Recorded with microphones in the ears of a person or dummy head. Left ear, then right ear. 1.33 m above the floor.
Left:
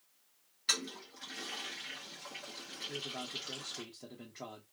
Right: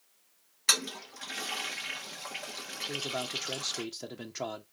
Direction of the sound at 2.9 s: 80° right.